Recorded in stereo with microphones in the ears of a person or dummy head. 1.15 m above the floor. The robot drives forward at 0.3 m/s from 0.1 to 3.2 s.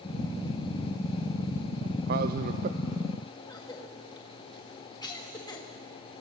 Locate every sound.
2.1 s a man speaking: 55° right (ahead or behind), 0.6 m; by 2.8 s 45° right (ahead or behind), 0.7 m
3.5 s a cough: 20° left (ahead or behind), 1.7 m